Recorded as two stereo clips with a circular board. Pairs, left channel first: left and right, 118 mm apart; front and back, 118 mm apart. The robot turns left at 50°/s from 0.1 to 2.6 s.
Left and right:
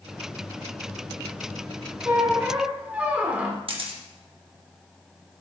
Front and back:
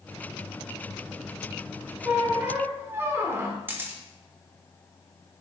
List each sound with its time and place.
2.0 s a squeak: 125° right, 1.2 m; by 3.6 s 150° right, 1.2 m
3.7 s a camera shutter: 115° right, 1.3 m